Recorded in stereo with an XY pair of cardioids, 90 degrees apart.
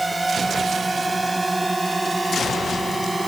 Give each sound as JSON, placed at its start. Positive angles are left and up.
{"t": 0.0, "sound": "a drone", "azimuth_deg": -15}